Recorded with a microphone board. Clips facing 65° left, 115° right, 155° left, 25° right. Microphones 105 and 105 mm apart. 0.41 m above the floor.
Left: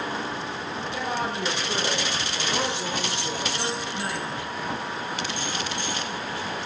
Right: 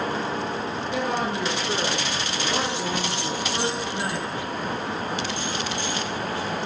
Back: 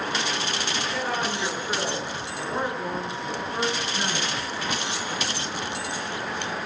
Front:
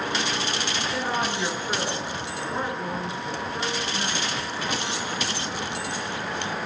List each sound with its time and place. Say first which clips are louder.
0.9 s a woman speaking: right 3 dB, front 2 dB; 100° right, 5.5 m; by 4.3 s 155° right, 4.5 m